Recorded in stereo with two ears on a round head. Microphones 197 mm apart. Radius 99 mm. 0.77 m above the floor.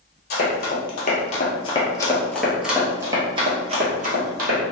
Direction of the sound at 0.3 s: 50° left (ahead or behind).